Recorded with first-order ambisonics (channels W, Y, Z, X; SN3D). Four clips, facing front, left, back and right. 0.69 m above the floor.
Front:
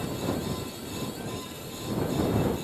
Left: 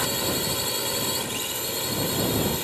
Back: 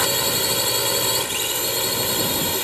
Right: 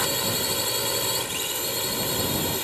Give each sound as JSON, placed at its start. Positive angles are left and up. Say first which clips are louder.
{"t": 0.0, "sound": "a drone", "louder": "even, back 10 dB", "azimuth_deg": -175}